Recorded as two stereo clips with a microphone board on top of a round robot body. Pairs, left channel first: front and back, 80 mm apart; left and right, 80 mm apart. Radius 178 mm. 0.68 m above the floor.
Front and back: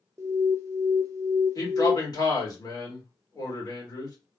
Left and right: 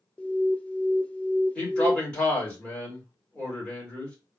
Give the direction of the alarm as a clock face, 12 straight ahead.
7 o'clock.